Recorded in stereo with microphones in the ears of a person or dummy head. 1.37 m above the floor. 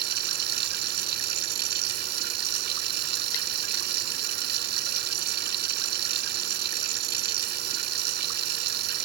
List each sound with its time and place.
0.0 s running water: 55° right (ahead or behind)